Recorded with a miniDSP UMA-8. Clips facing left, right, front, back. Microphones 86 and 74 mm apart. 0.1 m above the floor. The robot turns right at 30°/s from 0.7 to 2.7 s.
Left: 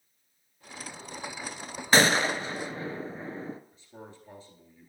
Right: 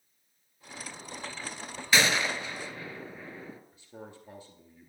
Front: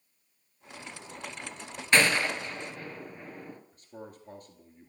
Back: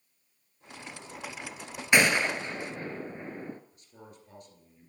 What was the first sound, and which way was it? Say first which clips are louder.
A gunshot: left 4 dB, back 1 dB; 110° left.